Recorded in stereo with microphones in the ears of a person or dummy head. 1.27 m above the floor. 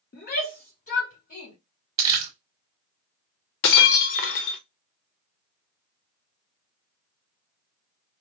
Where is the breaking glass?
65° left (ahead or behind), 0.8 m.